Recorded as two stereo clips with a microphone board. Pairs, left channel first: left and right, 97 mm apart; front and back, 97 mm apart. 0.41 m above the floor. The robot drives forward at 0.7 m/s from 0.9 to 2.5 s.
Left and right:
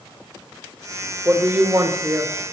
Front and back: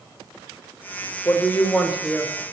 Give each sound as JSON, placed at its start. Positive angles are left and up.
{"t": 1.2, "sound": "a woman speaking", "azimuth_deg": -45, "distance_m": 1.0}